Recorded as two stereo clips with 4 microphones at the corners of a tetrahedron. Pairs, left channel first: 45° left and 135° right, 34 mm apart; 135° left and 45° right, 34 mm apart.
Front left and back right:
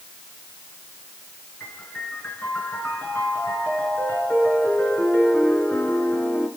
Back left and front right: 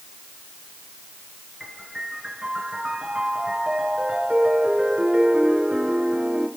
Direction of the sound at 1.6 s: 25° left.